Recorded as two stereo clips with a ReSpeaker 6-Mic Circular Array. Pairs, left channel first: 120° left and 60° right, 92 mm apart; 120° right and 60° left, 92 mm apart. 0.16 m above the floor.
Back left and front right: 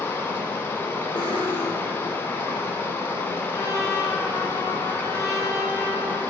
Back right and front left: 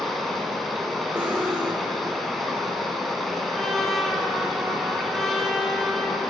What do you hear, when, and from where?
0.0 s running water: 155° left, 1.1 m
1.1 s cutlery clinking: 110° left, 1.9 m
3.5 s a trumpet: 155° left, 1.5 m